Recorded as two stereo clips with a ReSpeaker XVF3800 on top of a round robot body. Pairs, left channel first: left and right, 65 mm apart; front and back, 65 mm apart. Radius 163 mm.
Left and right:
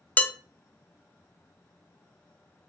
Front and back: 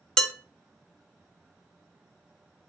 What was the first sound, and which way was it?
Dishes clattering, 65° left.